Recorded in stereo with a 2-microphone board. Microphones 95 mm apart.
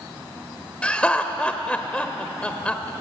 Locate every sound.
0.8 s laughter: 15° left (ahead or behind), 1.0 m